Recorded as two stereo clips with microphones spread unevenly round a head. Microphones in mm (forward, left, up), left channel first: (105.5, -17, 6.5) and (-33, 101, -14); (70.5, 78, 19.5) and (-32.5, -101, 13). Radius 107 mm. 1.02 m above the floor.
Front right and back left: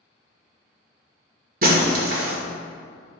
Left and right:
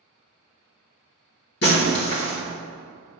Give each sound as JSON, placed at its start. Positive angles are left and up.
{"t": 1.6, "sound": "breaking glass", "azimuth_deg": 100, "distance_m": 1.7}